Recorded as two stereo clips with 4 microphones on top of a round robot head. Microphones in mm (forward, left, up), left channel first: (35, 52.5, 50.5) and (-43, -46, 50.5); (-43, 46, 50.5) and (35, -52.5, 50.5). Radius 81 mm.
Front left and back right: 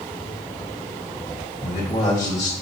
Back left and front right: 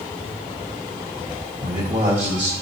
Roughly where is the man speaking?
Ahead.